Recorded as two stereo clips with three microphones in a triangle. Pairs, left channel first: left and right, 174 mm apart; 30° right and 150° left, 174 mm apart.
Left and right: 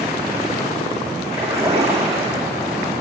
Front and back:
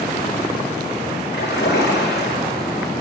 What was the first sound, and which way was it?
A splash, 20° right.